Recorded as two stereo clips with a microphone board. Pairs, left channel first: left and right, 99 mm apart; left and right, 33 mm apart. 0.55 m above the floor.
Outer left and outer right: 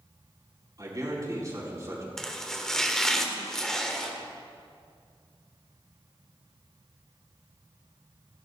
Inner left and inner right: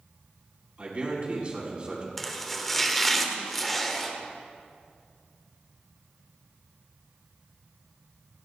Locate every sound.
0.8 s a man speaking: 40° right (ahead or behind), 4.5 m; by 2.1 s 30° right (ahead or behind), 4.5 m
2.2 s chopping: 5° left (ahead or behind), 1.3 m